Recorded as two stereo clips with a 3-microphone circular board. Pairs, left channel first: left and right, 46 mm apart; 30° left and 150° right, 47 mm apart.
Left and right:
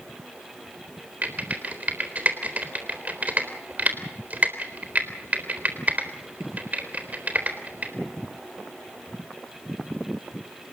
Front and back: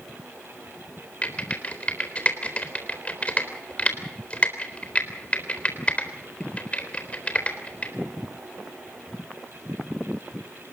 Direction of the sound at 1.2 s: 30° right.